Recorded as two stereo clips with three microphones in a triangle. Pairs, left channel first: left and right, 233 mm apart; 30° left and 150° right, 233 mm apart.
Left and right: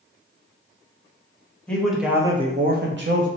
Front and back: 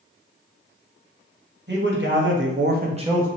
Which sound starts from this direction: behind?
A man speaking, at 1.7 s.